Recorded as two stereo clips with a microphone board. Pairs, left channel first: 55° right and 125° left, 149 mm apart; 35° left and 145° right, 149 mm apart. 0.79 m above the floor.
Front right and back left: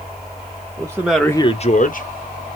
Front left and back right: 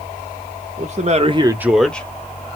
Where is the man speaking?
175° right, 1.2 m; by 2.1 s 45° right, 1.4 m.